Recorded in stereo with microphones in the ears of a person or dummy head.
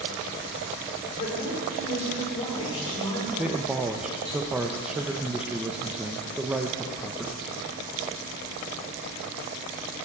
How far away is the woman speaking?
About 4 m.